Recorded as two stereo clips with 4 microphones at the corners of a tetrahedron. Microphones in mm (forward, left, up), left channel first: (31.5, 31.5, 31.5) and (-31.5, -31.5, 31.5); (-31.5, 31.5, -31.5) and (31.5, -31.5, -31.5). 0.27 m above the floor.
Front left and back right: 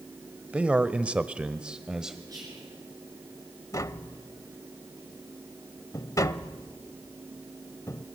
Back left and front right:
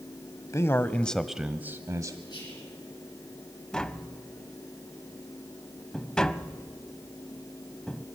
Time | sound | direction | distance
0.5 | a man speaking | 155° left | 1.2 m
2.3 | whispering | 175° left | 4.5 m
3.7 | tapping | 60° left | 0.7 m